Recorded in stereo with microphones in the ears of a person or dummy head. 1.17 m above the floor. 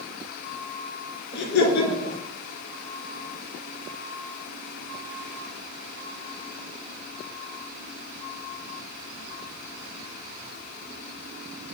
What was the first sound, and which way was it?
Laughter, 60° left (ahead or behind).